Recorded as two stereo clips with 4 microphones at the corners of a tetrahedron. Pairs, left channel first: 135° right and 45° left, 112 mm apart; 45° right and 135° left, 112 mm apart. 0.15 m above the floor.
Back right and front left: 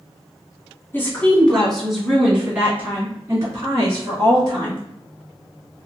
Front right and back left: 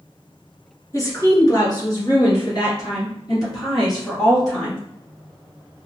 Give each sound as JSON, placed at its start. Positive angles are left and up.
{"t": 0.9, "sound": "a woman speaking", "azimuth_deg": -80, "distance_m": 2.0}